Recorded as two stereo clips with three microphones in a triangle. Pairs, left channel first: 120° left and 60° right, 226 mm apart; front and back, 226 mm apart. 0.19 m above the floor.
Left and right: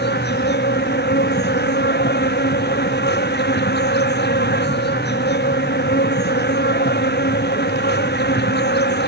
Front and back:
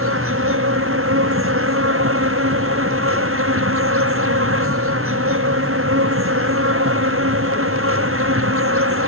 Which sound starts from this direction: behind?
An insect, at 0.0 s.